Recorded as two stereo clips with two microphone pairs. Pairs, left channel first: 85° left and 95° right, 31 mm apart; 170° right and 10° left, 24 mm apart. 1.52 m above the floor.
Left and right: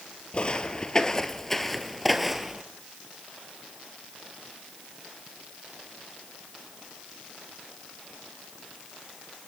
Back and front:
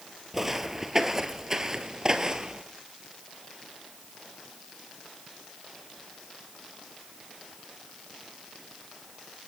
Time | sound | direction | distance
0.3 | footsteps | 75° left | 1.7 m